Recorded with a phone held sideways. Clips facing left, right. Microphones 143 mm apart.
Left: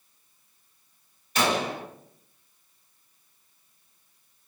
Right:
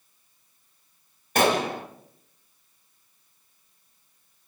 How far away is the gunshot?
About 0.7 m.